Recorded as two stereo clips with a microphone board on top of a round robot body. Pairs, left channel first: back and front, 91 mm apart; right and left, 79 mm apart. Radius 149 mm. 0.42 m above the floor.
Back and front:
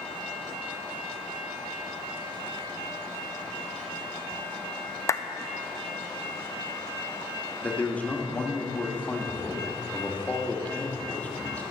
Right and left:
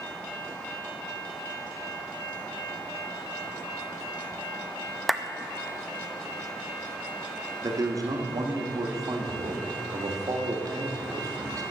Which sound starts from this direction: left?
A man speaking, at 7.6 s.